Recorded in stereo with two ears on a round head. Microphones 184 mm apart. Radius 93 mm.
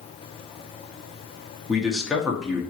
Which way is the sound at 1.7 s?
Centre (ahead or behind).